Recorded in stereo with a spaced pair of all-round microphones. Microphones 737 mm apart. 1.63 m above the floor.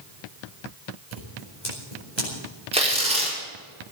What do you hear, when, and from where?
1.1 s scissors: 70° left (ahead or behind), 6 m
2.7 s tearing paper: 10° right (ahead or behind), 5 m